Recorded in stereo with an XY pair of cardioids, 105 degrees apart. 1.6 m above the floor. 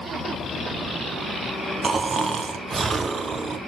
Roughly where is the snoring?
Ahead right.